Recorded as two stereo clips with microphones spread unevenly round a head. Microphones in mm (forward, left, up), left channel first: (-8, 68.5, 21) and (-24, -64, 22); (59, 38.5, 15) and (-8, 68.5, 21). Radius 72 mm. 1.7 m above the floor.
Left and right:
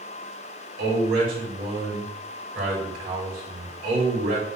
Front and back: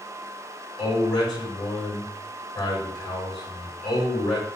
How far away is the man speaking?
About 4 m.